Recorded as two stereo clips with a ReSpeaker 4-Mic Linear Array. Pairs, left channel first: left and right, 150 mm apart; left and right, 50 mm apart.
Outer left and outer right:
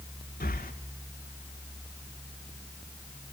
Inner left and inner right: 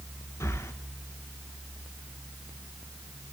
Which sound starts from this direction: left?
Breathing, at 0.4 s.